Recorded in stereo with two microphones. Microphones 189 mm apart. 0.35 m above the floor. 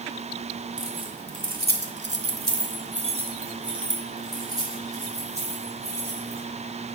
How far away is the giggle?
No giggle in this recording.